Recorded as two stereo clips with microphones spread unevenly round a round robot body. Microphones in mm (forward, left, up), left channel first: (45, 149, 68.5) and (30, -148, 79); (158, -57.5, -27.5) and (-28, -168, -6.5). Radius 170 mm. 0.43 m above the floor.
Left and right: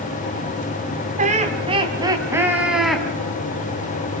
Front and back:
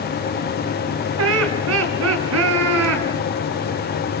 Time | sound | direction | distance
1.2 | laughter | 160° right | 3.5 m